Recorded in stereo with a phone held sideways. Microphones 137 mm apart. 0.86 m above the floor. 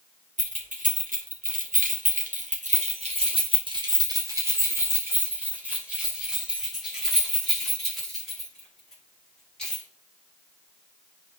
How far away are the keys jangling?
About 2.0 m.